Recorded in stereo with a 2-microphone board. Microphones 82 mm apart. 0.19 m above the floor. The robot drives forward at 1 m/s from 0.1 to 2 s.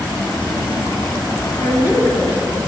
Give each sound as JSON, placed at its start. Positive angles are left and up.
{"t": 1.6, "sound": "a woman speaking", "side_deg": -25, "distance_m": 1.2}